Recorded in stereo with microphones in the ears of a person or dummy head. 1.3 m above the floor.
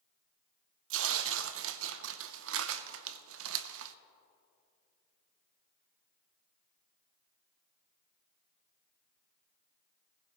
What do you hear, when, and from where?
0.9 s tearing paper: 70° right (ahead or behind), 0.5 m